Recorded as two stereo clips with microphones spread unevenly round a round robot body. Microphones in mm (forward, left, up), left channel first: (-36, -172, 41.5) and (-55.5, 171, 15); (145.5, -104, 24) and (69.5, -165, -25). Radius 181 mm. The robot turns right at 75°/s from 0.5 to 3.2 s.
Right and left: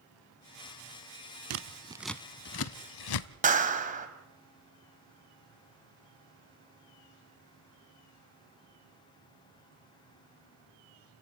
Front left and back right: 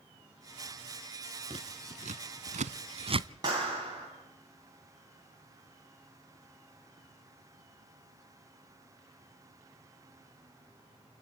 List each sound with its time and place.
1.5 s scissors: 140° left, 0.7 m; by 3.3 s 90° right, 0.7 m
3.4 s a clap: 160° left, 2.5 m